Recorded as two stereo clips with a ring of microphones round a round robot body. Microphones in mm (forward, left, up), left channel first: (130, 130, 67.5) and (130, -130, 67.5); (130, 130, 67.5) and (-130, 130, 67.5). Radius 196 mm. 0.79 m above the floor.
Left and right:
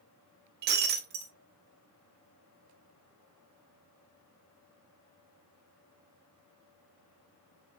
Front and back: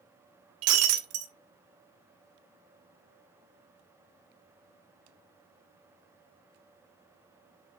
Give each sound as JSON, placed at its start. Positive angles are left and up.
{"t": 0.6, "sound": "breaking glass", "azimuth_deg": -145, "distance_m": 0.6}